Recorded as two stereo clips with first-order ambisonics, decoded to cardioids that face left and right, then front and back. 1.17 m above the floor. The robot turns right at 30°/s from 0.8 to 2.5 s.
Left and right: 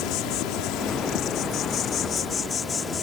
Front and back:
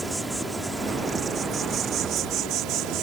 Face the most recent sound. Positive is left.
turn(degrees=155)